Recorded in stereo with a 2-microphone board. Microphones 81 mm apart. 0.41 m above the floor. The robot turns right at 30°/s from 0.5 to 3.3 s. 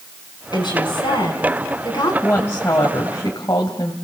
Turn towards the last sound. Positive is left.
turn(degrees=60)